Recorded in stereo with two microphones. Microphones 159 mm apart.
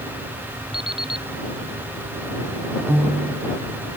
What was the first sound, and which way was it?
An alarm clock, 35° right (ahead or behind).